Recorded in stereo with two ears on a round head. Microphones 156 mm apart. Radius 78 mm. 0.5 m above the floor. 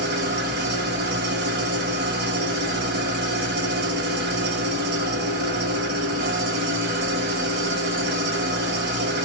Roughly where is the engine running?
Right.